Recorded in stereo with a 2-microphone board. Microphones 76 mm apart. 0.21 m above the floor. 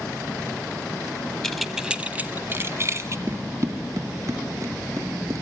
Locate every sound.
1.4 s keys jangling: 5° left (ahead or behind), 0.7 m; by 3.2 s 45° right (ahead or behind), 1.2 m
3.3 s running footsteps: 40° right (ahead or behind), 1.3 m; by 5.4 s 50° right (ahead or behind), 3 m